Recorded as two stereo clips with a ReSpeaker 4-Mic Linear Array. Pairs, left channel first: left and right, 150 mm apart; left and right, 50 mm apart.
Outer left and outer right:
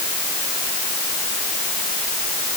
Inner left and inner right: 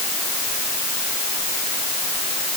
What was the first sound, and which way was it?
Only background noise.